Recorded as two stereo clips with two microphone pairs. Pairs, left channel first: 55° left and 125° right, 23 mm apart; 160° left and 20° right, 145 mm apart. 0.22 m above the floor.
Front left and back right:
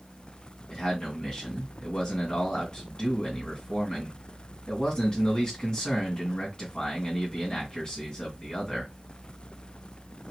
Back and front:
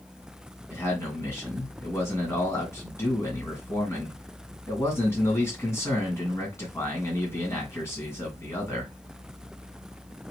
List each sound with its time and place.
0.7 s a man speaking: 95° left, 2.5 m